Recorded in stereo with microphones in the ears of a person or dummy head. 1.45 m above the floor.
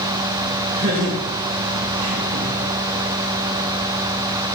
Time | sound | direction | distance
0.8 | laughter | 45° right (ahead or behind) | 1.7 m